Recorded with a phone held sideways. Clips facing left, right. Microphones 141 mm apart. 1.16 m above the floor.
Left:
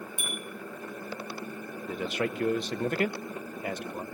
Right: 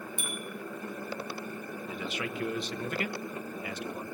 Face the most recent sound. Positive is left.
turn(degrees=50)  # may be behind; listen again after turning